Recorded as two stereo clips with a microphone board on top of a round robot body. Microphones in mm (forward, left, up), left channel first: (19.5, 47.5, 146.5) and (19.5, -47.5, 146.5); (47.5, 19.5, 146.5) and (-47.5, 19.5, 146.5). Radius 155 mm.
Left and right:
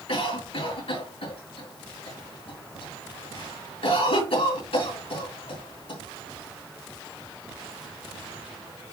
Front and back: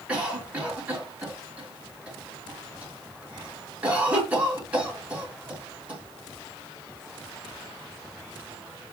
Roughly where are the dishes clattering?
I don't hear dishes clattering.